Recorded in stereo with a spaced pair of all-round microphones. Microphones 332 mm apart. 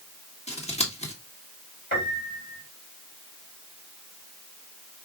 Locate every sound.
0.5 s scissors: 20° left (ahead or behind), 1.7 m
1.9 s a piano: 30° left (ahead or behind), 3 m